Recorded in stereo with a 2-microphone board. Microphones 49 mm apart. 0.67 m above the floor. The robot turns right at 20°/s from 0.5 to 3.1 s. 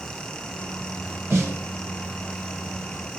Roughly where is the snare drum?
Right.